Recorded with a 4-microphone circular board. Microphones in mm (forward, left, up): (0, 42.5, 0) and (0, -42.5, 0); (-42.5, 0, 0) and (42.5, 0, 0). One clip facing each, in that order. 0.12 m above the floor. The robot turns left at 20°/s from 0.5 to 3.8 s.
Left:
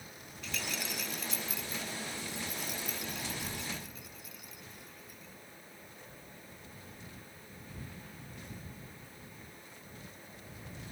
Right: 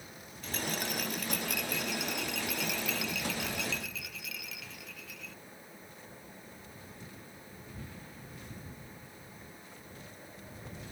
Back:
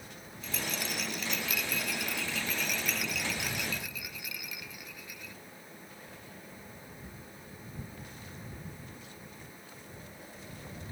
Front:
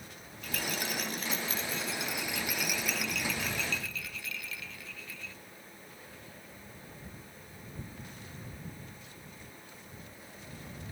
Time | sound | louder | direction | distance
0.4 | a rattle | right 4 dB, front 1 dB | 40° right | ?